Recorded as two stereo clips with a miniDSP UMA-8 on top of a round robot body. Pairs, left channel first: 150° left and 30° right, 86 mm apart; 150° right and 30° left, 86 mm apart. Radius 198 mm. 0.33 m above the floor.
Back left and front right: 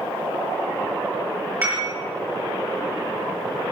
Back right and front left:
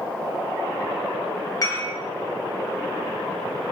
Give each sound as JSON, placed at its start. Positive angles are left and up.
{"t": 1.6, "sound": "dishes clattering", "azimuth_deg": -95, "distance_m": 7.0}